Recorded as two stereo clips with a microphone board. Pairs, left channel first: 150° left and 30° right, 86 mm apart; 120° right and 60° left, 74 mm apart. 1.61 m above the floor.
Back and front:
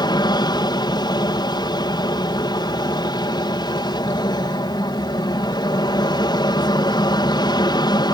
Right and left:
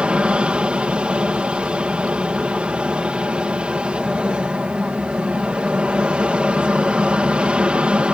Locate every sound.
0.0 s an aircraft: 135° left